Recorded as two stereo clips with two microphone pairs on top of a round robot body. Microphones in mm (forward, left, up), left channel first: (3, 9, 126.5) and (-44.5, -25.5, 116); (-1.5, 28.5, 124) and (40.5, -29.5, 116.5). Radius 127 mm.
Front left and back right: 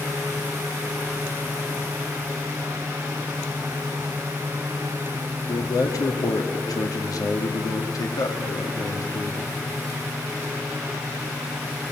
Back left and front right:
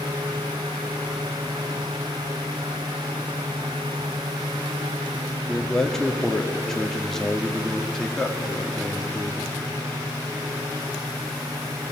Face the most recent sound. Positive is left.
turn(degrees=40)